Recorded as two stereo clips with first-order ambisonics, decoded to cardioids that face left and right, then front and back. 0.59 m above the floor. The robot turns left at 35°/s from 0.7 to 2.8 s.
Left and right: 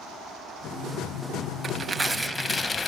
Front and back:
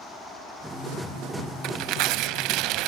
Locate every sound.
1.6 s tearing paper: 155° right, 0.6 m; by 2.9 s 165° left, 0.6 m